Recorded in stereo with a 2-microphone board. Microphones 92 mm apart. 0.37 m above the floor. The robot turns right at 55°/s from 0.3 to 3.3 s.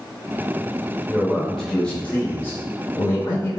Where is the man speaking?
20° right, 0.9 m; by 3.6 s 105° left, 0.9 m.